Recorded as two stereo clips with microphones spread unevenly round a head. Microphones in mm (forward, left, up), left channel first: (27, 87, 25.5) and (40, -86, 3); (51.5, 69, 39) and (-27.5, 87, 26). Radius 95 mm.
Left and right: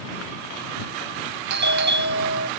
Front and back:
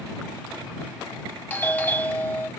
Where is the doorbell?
90° right.